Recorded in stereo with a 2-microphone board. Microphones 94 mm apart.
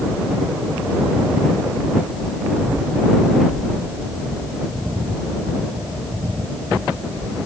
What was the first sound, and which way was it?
Only background noise.